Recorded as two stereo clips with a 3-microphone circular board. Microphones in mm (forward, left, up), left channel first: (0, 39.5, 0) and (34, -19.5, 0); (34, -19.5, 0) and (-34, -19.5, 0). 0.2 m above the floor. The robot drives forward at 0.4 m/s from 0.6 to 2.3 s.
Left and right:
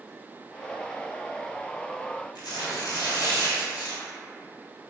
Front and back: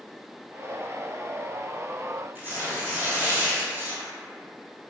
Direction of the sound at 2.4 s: 120° left.